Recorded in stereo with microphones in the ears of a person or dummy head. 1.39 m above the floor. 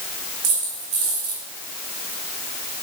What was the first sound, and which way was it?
A dropped coin, 35° right (ahead or behind).